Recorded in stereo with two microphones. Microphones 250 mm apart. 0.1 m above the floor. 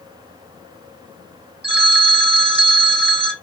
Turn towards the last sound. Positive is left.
turn(degrees=-45)  # may be behind; listen again after turning